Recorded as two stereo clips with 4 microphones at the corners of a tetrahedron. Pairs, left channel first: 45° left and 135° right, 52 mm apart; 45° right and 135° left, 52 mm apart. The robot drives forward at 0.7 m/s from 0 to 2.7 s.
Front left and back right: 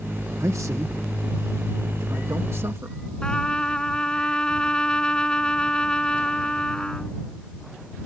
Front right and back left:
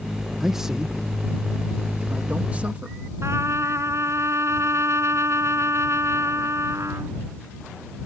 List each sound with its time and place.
0.4 s a man speaking: 140° right; by 3.0 s 165° right
3.2 s a trumpet: 115° left